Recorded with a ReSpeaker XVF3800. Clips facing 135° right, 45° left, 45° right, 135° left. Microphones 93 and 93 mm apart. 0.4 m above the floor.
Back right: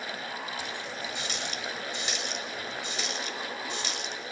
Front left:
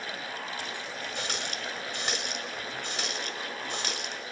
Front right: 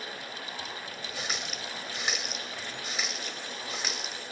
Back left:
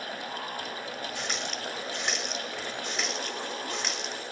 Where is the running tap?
40° left, 1.2 m.